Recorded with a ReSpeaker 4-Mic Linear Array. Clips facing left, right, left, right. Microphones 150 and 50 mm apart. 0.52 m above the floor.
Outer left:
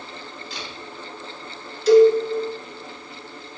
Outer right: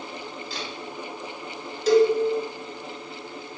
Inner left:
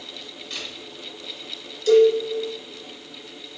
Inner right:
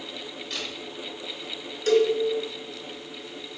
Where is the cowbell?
50° right (ahead or behind), 1.1 m.